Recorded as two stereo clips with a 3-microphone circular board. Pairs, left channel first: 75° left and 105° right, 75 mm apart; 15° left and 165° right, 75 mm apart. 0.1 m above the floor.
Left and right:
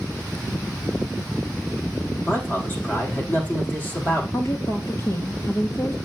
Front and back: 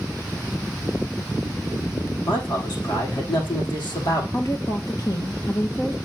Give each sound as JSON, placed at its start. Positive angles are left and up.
{"t": 2.2, "sound": "a man speaking", "azimuth_deg": 15, "distance_m": 6.0}
{"t": 4.3, "sound": "a woman speaking", "azimuth_deg": 40, "distance_m": 2.0}